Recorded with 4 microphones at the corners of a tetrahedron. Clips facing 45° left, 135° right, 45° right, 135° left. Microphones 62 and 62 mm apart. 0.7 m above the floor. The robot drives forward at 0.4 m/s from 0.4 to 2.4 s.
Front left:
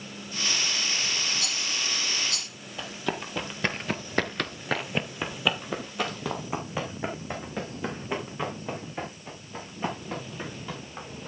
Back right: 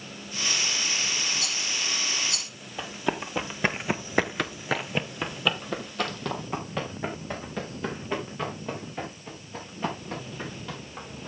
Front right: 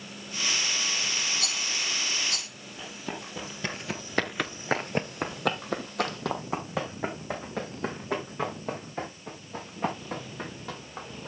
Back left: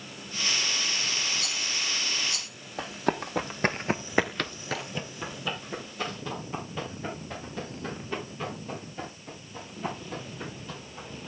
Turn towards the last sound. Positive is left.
turn(degrees=-35)